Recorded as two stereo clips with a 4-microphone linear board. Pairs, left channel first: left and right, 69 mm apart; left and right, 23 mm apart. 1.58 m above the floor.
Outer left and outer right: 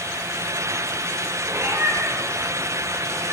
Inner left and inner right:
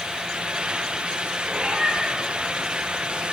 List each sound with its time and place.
1.5 s a cat meowing: 40° right (ahead or behind), 8 m; by 3.3 s 35° right (ahead or behind), 7 m